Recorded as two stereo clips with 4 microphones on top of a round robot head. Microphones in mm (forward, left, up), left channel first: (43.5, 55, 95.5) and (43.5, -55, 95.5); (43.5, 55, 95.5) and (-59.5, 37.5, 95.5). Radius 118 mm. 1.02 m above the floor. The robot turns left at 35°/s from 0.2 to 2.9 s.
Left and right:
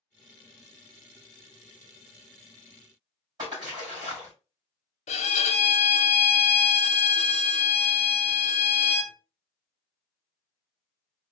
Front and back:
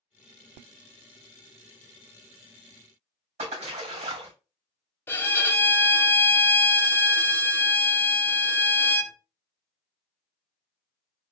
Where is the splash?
150° right, 2.5 m.